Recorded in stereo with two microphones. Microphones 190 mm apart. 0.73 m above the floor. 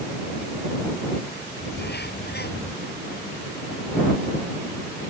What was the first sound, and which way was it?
A bird, 60° left (ahead or behind).